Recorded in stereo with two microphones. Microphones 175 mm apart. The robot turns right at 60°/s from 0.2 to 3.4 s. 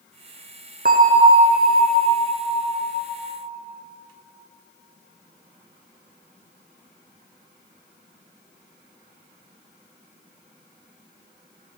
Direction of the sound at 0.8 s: 60° right.